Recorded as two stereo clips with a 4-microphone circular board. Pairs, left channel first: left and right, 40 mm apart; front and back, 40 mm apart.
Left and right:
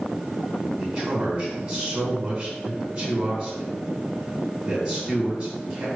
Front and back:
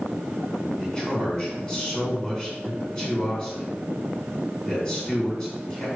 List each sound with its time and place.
0.8 s a man speaking: 30° right, 1.6 m